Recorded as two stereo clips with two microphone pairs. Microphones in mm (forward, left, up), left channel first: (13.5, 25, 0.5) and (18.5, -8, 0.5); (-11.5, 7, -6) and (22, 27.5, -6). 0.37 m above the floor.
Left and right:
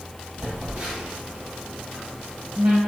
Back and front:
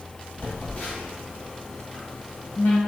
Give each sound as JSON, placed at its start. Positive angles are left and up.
{"t": 0.4, "sound": "a phone buzzing", "azimuth_deg": -105, "distance_m": 1.7}